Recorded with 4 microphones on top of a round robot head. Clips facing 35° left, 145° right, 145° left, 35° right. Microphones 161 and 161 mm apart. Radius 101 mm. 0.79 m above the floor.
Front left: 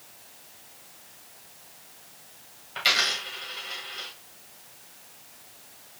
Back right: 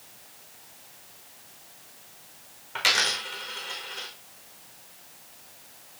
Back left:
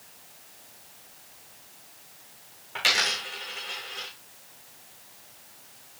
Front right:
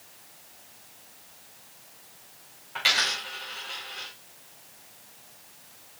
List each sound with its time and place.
2.8 s a dropped coin: 165° right, 5 m